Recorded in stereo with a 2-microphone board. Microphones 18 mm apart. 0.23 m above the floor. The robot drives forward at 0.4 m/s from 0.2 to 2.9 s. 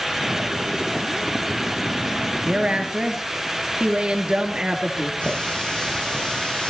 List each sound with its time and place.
2.5 s a woman speaking: 55° right (ahead or behind), 4 m
5.2 s a running tap: 75° left (ahead or behind), 8 m